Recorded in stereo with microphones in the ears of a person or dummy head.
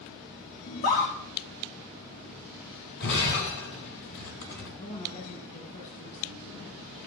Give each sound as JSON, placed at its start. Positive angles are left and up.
{"t": 0.7, "sound": "a scream", "side_deg": 45, "distance_m": 2.5}
{"t": 3.0, "sound": "breaking glass", "side_deg": 55, "distance_m": 3.0}
{"t": 4.8, "sound": "a woman speaking", "side_deg": 35, "distance_m": 2.0}